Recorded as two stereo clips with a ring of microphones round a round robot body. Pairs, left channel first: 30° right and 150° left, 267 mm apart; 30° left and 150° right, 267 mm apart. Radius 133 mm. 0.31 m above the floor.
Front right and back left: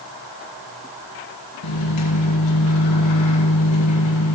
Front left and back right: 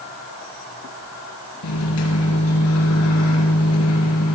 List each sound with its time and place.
1.6 s a microwave: 5° right, 3.5 m